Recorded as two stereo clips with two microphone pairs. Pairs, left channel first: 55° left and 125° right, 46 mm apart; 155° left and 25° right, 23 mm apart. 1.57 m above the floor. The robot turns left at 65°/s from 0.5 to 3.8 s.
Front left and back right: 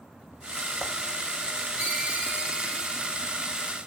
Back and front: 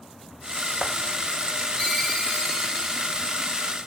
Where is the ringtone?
95° right, 1.1 m; by 3.1 s 175° left, 1.1 m.